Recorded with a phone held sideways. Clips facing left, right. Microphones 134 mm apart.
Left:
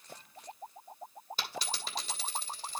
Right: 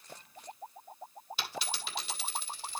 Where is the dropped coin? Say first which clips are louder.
Even; 40° left (ahead or behind), 3 m.